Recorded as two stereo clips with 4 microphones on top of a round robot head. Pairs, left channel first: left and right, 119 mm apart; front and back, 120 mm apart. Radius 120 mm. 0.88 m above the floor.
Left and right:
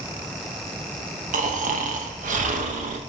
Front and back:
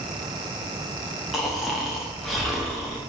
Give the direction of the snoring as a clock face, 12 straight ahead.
3 o'clock.